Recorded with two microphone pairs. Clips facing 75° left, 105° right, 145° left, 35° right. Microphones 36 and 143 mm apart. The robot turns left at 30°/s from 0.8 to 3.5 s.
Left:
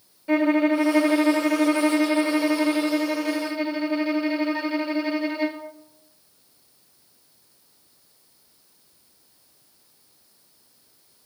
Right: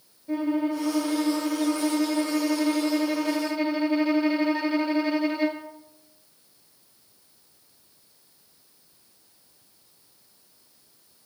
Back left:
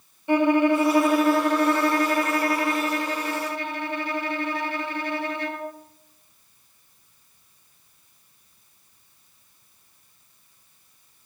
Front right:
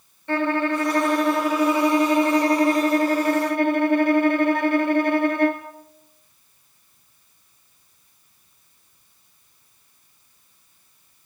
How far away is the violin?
About 1.8 m.